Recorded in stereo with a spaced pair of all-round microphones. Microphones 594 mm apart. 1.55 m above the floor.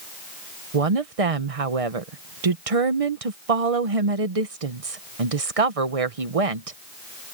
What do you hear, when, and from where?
0.7 s a woman speaking: 65° right (ahead or behind)